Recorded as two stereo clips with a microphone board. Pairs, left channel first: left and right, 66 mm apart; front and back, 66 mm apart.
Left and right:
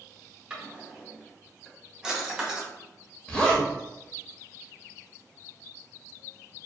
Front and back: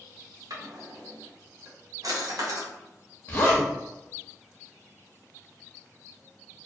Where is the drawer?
165° right, 0.7 m.